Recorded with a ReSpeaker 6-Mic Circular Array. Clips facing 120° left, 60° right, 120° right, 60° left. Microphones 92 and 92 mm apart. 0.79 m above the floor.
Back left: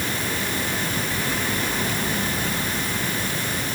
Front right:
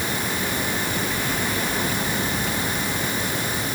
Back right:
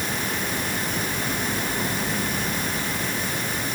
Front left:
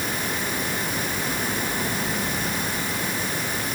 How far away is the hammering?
I don't hear hammering.